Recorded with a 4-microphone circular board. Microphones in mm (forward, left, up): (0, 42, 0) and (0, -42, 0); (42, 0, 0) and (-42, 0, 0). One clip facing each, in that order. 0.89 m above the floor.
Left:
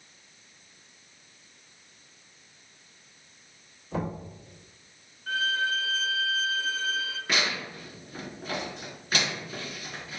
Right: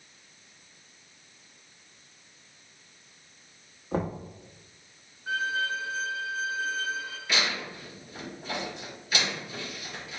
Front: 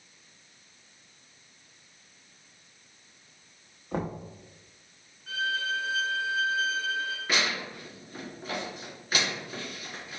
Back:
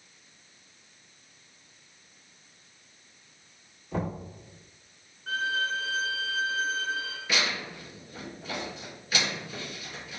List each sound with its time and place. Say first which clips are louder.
3.9 s knocking: right 2 dB, even; 45° right, 1.1 m
5.3 s a violin: left 1 dB, back 1 dB; 160° right, 0.7 m
7.3 s tearing paper: even, back 1 dB; 40° left, 2 m